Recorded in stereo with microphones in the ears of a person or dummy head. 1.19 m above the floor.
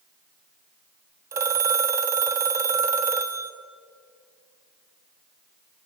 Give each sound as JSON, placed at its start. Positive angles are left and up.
{"t": 1.3, "sound": "a phone ringing", "side_deg": -15, "distance_m": 0.9}